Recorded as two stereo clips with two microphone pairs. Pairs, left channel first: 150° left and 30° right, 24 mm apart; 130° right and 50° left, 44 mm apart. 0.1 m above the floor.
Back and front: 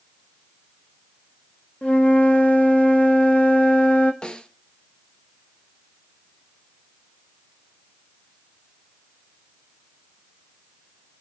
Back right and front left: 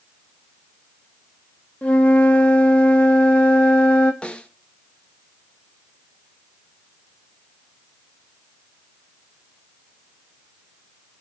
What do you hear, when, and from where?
1.8 s a flute: 165° left, 1.5 m
4.2 s a snare drum: 170° left, 1.0 m